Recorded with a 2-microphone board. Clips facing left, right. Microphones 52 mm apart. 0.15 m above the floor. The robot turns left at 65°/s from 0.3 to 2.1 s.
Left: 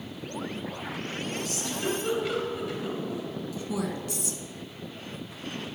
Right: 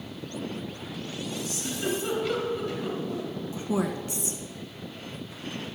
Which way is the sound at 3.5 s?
25° right (ahead or behind).